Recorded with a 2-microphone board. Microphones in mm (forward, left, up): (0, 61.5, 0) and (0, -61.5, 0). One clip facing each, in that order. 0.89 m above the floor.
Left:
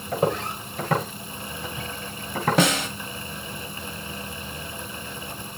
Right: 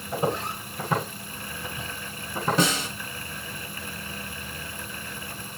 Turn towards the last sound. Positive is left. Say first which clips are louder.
# left 4 dB
turn(degrees=70)  # may be behind; listen again after turning